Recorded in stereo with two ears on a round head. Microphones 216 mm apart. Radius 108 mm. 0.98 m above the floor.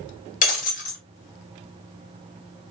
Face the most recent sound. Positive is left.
turn(degrees=35)  # may be behind; listen again after turning